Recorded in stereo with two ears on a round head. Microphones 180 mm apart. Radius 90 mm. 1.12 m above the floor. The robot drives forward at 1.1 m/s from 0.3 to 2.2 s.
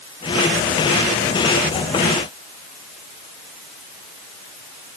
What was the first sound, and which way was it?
Only background noise.